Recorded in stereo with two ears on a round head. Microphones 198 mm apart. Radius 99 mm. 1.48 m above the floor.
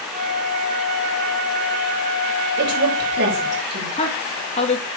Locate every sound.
0.1 s a flute: 40° right (ahead or behind), 5.5 m
2.6 s a woman speaking: 50° right (ahead or behind), 7 m
4.0 s a woman speaking: 30° left (ahead or behind), 2 m